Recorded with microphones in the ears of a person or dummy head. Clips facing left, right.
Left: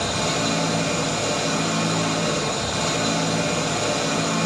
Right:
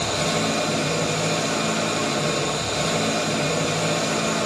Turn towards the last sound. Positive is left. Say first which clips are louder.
# right 1 dB
turn(degrees=-40)  # may be behind; listen again after turning